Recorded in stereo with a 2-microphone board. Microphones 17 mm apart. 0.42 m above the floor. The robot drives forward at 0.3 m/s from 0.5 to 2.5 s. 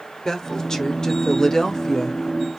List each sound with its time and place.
0.2 s a woman speaking: 40° left (ahead or behind), 1.1 m; by 2.6 s 35° left (ahead or behind), 1.1 m